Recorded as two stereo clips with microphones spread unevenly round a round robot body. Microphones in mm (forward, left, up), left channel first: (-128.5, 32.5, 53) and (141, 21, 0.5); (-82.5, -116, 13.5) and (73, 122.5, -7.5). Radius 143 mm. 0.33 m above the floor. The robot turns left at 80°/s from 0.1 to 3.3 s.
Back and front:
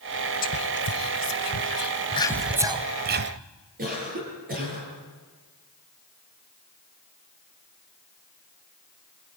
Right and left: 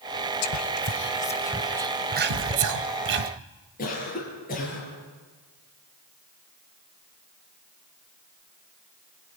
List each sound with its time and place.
0.4 s whispering: 120° right, 1.2 m; by 3.3 s 10° left, 1.2 m
2.3 s a thud: 85° left, 6.5 m; by 2.7 s 55° left, 6.5 m
3.8 s a cough: 60° right, 8.5 m